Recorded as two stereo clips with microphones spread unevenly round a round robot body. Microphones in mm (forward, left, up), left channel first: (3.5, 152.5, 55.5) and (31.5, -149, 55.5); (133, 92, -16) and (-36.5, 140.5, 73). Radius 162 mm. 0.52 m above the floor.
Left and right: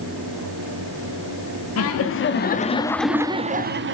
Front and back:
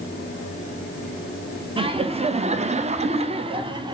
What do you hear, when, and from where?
1.8 s laughter: 85° left, 1.0 m; by 4.0 s 105° right, 0.9 m